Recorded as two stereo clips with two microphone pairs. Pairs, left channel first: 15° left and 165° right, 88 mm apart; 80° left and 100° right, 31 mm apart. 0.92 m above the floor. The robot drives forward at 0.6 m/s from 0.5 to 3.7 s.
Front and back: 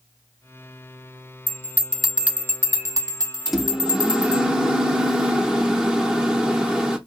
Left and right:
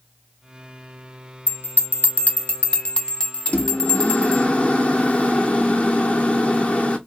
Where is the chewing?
I don't hear chewing.